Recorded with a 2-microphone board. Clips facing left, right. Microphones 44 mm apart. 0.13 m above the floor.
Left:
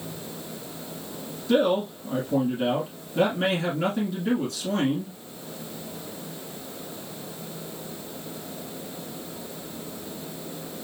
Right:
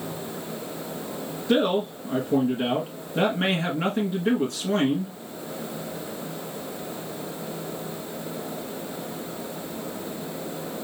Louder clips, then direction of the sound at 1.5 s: Even; 20° right (ahead or behind).